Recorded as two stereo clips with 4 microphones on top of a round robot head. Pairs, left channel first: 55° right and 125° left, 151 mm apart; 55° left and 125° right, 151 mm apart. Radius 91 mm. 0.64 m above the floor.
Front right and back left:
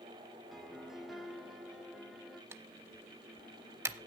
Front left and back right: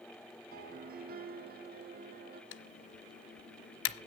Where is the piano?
145° right, 0.8 m.